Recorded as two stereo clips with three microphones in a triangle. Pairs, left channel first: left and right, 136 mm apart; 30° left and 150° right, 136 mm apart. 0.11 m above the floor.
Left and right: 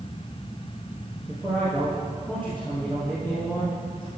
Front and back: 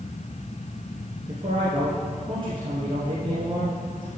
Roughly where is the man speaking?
Behind.